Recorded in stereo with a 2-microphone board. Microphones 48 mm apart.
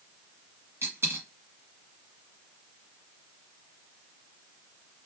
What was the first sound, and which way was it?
A dropped coin, 65° right (ahead or behind).